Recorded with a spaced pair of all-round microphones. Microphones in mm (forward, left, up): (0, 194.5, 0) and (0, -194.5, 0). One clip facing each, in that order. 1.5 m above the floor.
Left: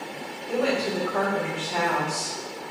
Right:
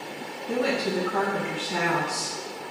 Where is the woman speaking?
55° right (ahead or behind), 0.9 m.